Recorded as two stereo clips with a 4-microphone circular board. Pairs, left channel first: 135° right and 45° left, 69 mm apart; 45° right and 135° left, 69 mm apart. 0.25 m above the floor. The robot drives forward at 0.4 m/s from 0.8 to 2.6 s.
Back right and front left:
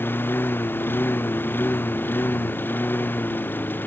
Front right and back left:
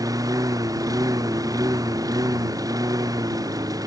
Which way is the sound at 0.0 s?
165° left.